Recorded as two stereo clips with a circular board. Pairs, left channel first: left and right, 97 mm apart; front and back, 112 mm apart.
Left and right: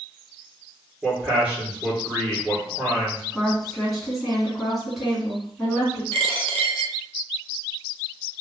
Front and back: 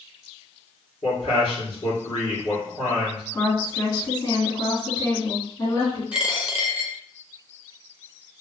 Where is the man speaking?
15° right, 2.0 m.